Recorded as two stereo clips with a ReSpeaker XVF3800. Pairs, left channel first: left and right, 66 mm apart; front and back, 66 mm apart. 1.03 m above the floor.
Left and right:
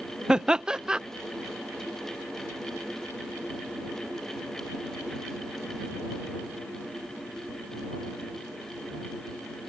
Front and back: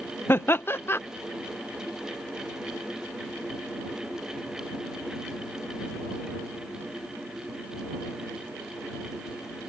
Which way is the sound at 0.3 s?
20° right.